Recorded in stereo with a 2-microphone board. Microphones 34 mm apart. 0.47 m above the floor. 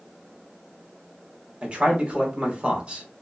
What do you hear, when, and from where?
1.6 s a man speaking: 40° right (ahead or behind), 1.3 m